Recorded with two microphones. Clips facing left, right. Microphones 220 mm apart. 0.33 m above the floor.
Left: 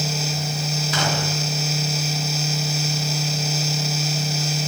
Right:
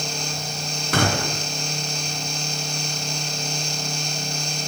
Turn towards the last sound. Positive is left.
turn(degrees=-60)  # may be behind; listen again after turning